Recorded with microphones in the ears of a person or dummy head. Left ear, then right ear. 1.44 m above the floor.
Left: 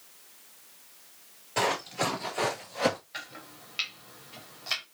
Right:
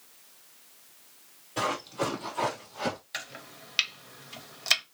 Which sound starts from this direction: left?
Running footsteps, at 1.6 s.